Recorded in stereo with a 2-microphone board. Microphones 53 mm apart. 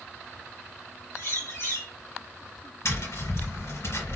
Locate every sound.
1.1 s a bird: 55° left (ahead or behind), 1.7 m
2.9 s tapping: 60° left (ahead or behind), 3 m